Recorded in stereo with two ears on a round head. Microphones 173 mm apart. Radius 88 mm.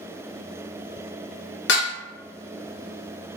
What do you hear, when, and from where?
1.7 s dishes clattering: 65° left (ahead or behind), 1.0 m